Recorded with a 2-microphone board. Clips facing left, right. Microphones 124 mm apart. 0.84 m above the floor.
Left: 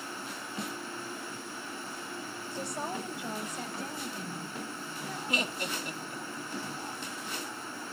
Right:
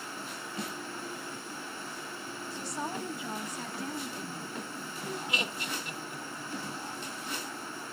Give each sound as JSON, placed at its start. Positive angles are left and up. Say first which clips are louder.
{"t": 2.5, "sound": "a woman speaking", "louder": "left 1 dB", "side_deg": 50, "distance_m": 3.5}
{"t": 5.3, "sound": "laughter", "louder": "left 2 dB", "side_deg": 40, "distance_m": 1.9}